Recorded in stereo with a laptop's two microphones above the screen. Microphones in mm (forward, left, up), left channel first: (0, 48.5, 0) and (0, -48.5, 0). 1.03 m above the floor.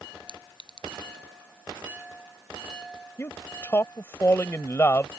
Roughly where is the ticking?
No ticking in this recording.